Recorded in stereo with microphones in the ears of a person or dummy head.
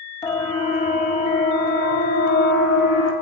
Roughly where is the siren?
Centre.